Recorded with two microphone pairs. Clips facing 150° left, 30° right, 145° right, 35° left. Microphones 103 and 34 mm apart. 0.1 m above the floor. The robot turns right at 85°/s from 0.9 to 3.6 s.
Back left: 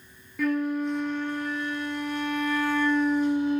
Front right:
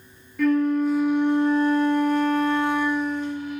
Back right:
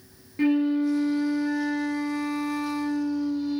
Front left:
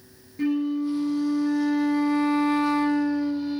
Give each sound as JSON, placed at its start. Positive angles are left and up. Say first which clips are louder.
{"t": 0.4, "sound": "a flute", "louder": "front right 6 dB, back right 2 dB", "azimuth_deg": -125, "distance_m": 0.6}